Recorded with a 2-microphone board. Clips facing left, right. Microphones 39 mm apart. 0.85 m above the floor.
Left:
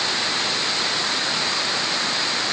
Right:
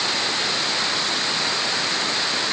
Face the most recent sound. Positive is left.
No sound to turn to.